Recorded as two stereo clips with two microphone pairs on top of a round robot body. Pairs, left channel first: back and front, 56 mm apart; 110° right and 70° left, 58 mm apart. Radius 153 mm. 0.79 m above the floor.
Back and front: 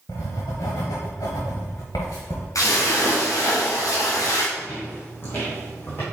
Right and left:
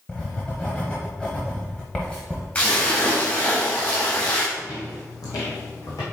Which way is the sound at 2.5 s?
175° right.